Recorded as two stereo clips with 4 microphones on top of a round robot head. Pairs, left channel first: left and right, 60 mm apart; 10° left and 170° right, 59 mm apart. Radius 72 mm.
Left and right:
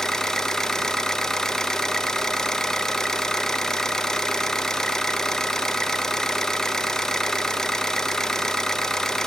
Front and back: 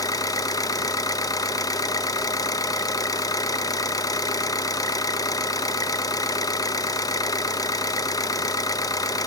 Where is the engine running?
10° left, 0.7 m.